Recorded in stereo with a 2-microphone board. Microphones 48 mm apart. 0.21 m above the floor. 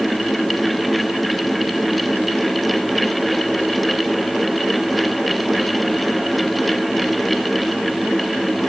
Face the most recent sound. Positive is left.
No sound to turn to.